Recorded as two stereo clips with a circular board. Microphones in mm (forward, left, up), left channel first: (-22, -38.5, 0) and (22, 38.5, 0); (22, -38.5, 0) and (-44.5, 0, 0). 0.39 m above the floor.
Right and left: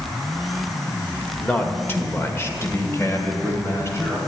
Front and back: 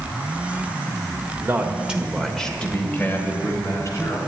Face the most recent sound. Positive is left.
turn(degrees=-65)